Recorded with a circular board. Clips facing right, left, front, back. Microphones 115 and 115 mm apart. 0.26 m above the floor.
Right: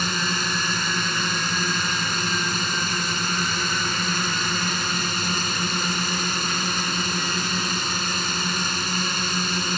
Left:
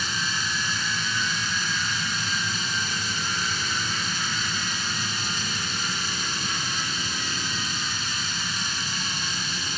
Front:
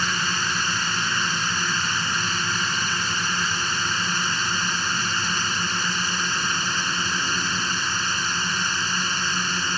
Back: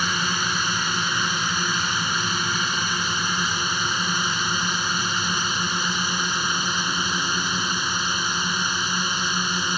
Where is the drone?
105° right.